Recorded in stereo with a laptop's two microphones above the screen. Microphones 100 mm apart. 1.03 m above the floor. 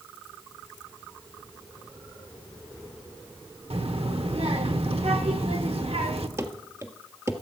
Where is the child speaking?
75° right (ahead or behind), 1.3 m.